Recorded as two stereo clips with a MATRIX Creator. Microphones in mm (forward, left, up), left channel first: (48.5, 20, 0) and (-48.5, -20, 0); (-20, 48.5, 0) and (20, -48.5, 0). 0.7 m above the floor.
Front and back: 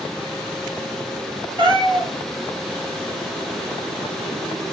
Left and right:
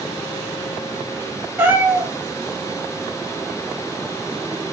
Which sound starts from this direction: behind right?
A cat meowing, at 1.6 s.